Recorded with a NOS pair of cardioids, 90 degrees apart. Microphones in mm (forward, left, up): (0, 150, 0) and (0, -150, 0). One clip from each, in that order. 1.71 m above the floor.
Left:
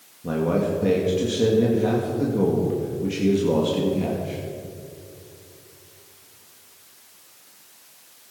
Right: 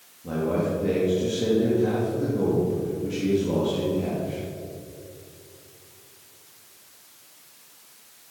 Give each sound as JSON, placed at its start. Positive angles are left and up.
{"t": 0.2, "sound": "a man speaking", "azimuth_deg": 45, "distance_m": 3.0}